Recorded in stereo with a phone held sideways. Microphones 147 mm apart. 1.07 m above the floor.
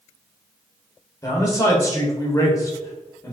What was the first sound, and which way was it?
A man speaking, 25° left (ahead or behind).